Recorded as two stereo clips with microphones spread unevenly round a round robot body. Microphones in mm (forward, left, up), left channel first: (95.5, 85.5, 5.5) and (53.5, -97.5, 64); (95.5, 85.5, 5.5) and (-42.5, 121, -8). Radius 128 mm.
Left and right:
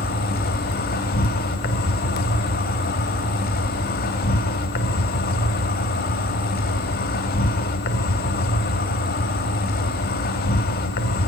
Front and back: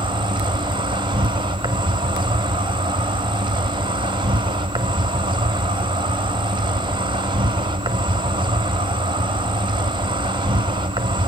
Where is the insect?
110° left, 1.1 m.